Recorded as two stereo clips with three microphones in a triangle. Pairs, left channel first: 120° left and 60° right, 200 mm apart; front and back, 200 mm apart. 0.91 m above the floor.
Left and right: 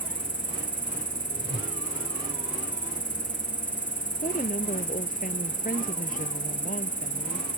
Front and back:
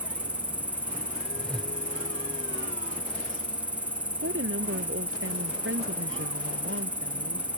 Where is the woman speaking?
170° left.